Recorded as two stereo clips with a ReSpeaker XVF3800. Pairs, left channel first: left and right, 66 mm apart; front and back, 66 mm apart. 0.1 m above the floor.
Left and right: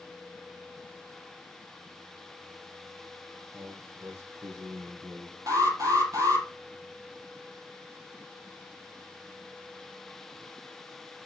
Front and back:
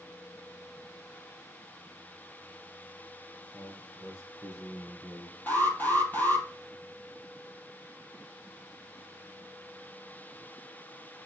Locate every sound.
3.5 s a man speaking: 45° right, 4.5 m; by 5.4 s 50° right, 3.5 m
5.5 s an alarm: 60° right, 3 m